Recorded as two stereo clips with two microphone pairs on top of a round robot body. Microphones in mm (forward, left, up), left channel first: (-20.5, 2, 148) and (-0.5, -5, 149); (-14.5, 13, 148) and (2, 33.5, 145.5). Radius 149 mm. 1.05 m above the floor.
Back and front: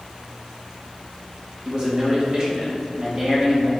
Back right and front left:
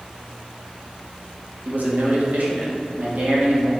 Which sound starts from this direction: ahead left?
A man speaking, at 1.6 s.